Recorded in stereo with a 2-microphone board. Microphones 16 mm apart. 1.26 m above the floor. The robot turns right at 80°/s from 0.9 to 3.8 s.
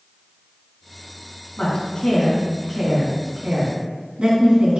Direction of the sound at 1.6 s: 80° left.